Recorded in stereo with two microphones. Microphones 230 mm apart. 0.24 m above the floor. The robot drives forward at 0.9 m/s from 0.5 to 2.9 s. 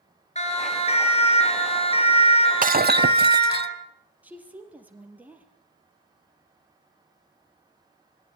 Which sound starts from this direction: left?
A siren, at 0.3 s.